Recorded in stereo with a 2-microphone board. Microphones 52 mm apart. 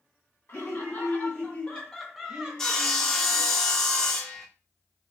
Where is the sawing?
10° left (ahead or behind), 0.6 m.